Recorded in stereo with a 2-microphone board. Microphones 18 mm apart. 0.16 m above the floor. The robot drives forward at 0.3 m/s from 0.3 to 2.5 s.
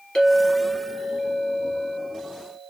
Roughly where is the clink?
Left.